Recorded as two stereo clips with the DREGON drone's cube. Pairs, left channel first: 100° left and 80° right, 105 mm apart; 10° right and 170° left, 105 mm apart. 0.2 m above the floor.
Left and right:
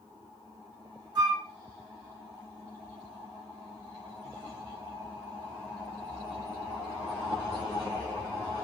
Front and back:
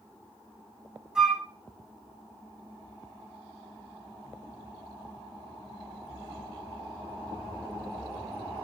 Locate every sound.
1.1 s a flute: 110° right, 0.8 m